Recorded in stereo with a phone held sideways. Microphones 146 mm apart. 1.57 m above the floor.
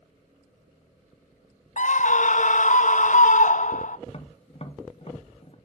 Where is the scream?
60° left (ahead or behind), 0.5 m.